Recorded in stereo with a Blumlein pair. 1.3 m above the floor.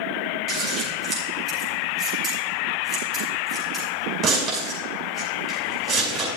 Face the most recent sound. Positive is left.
turn(degrees=-35)